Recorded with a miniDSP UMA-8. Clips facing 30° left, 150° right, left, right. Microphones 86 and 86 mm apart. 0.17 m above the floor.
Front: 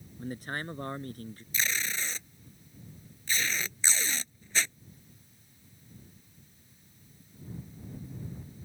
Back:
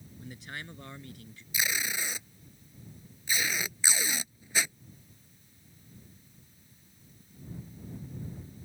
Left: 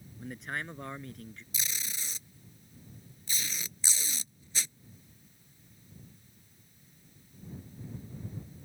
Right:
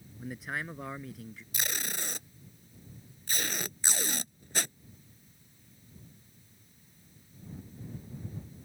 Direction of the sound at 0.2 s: 5° right.